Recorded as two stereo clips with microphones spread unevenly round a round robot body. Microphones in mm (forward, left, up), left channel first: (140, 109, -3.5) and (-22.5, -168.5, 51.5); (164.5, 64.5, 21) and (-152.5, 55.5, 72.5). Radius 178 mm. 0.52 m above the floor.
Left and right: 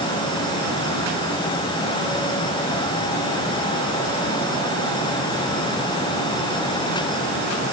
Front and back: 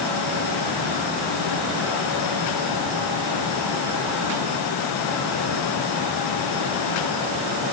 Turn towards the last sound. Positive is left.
No sound to turn to.